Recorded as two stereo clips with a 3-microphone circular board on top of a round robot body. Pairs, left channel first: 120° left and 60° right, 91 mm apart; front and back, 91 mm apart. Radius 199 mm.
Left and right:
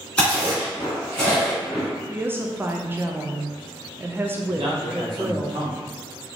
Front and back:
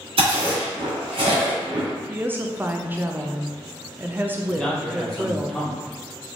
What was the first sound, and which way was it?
Chewing, 160° right.